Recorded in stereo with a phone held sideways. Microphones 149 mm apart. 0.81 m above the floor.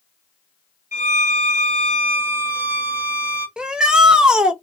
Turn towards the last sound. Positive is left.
turn(degrees=-5)  # may be behind; listen again after turning